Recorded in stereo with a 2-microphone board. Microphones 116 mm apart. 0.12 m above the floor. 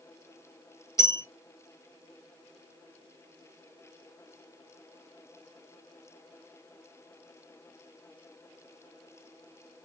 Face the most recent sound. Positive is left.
turn(degrees=25)  # may be behind; listen again after turning